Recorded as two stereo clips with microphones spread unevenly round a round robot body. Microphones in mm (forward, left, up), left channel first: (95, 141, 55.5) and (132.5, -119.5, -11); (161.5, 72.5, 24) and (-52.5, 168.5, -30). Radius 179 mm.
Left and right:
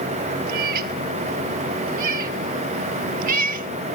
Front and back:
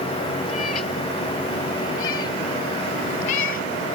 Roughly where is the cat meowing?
Right.